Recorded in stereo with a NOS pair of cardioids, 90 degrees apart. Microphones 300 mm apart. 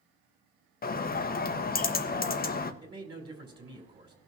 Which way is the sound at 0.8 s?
30° left.